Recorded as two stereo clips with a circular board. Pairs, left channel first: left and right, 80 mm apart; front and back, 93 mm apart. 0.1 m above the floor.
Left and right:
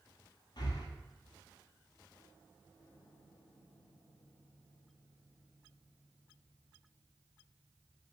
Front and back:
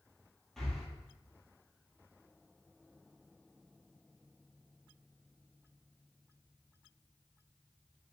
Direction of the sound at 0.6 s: 85° left.